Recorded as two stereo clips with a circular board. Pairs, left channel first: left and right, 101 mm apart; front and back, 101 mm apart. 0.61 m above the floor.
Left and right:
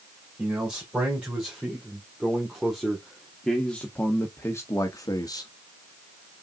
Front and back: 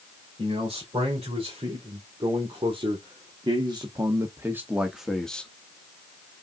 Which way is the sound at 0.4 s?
165° right.